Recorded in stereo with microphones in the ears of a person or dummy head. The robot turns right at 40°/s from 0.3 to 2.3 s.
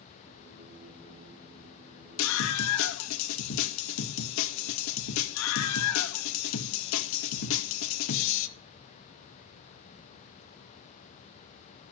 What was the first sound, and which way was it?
A scream, 85° left.